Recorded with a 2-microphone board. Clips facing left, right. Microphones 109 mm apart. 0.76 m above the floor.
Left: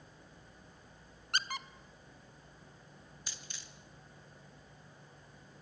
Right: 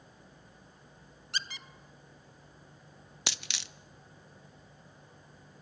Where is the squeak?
55° left (ahead or behind), 0.9 m.